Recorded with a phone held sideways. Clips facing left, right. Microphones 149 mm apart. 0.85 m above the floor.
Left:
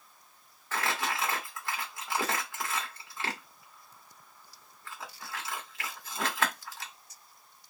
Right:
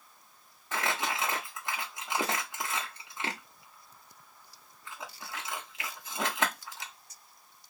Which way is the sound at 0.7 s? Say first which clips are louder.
Even; 20° right (ahead or behind).